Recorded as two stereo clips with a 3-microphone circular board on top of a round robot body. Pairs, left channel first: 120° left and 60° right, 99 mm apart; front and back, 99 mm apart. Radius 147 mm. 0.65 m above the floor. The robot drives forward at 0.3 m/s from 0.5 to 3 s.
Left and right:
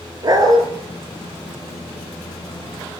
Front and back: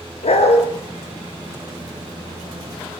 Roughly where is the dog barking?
Ahead.